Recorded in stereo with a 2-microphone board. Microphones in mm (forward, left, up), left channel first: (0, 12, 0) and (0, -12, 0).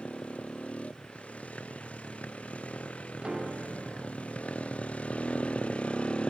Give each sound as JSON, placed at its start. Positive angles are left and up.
{"t": 0.0, "sound": "a motorcycle", "side_deg": 85}
{"t": 3.2, "sound": "a piano", "side_deg": -45}